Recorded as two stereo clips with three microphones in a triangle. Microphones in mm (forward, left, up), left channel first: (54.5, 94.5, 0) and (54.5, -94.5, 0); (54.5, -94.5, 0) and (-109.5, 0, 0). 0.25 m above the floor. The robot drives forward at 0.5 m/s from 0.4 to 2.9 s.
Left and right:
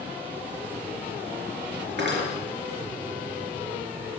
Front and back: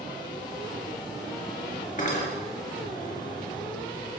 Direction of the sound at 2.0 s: 75° right.